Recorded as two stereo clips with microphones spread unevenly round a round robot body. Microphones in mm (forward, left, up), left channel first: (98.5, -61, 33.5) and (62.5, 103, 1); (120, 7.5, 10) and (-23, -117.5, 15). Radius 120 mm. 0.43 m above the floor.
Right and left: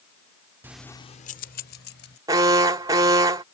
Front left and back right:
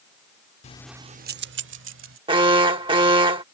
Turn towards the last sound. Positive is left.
turn(degrees=160)